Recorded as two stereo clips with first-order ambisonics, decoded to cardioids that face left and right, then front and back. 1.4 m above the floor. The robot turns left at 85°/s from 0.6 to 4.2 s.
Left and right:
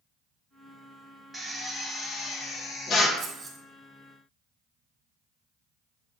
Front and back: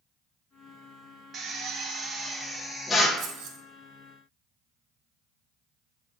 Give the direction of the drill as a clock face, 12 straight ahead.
5 o'clock.